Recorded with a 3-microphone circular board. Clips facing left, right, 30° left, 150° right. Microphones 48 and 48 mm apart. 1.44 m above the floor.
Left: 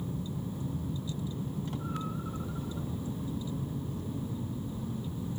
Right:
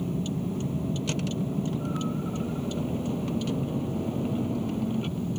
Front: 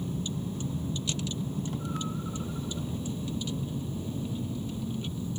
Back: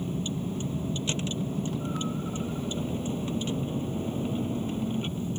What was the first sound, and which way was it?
A vehicle, 95° right.